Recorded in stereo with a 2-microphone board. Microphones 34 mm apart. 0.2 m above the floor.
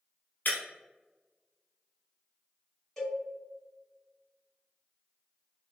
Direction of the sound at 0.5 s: 60° left (ahead or behind).